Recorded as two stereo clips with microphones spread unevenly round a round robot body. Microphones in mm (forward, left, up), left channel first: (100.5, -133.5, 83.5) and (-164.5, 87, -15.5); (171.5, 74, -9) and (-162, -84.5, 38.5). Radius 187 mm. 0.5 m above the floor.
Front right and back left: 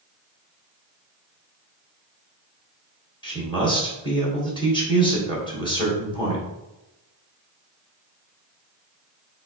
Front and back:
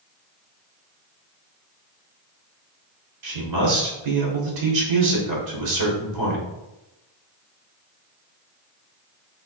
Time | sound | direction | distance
3.2 | a man speaking | 130° right | 1.8 m